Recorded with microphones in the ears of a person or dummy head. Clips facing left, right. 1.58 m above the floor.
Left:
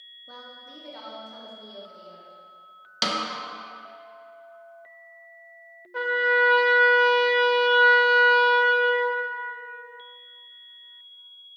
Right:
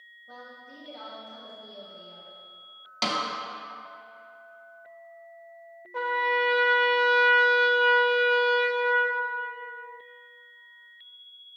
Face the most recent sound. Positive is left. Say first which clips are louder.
# left 3 dB
turn(degrees=5)  # may be behind; listen again after turning